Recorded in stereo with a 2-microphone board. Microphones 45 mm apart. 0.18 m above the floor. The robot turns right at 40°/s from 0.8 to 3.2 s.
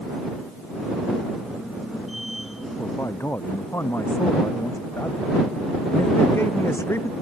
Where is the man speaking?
85° left; by 7.1 s 75° left (ahead or behind).